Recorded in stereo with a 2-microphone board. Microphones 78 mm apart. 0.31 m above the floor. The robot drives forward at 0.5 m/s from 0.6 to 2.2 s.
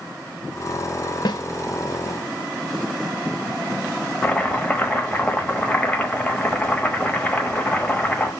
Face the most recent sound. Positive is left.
turn(degrees=15)  # may be behind; listen again after turning